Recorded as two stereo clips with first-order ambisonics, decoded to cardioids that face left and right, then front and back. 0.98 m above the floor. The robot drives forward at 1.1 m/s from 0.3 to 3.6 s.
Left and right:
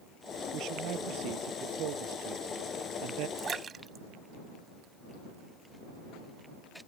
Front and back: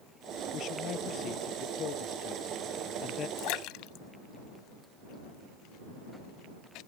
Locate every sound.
0.5 s a man speaking: 50° right; by 3.3 s 60° right
3.4 s a splash: 25° right